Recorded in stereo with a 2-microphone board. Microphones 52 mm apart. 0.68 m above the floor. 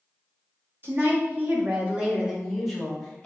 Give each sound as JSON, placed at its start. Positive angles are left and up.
{"t": 0.8, "sound": "a woman speaking", "side_deg": -40, "distance_m": 1.4}